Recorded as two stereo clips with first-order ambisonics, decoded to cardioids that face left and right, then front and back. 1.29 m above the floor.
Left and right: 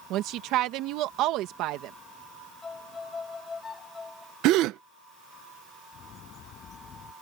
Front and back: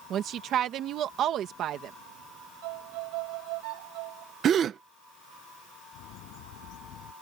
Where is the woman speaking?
130° right.